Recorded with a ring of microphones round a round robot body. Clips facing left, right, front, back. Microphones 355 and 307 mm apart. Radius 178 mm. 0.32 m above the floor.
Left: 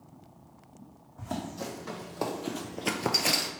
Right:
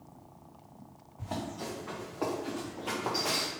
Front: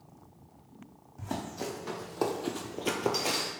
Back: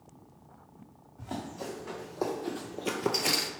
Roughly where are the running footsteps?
Ahead left.